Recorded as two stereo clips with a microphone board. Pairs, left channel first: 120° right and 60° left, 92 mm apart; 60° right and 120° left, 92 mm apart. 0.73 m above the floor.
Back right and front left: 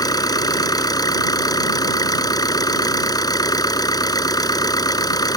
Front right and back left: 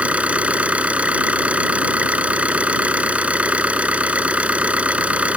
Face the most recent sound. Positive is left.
turn(degrees=-165)